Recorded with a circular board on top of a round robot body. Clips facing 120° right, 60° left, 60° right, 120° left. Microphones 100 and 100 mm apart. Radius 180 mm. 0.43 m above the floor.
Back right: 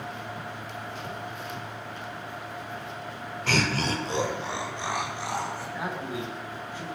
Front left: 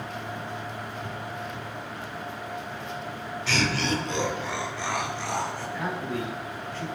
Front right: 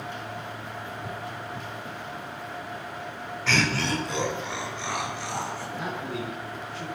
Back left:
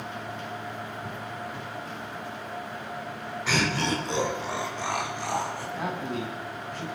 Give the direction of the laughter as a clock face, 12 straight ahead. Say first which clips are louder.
Even, front right 1 dB; 5 o'clock.